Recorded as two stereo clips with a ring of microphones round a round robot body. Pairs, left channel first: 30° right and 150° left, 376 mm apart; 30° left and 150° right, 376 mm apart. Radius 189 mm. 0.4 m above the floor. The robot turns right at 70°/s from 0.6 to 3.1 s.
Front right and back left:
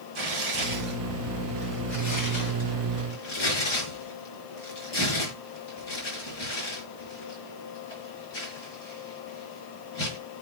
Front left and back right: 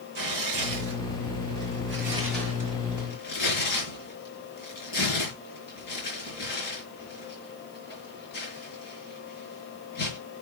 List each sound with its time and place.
0.1 s tearing paper: straight behind, 5 m; by 10.2 s 5° right, 5 m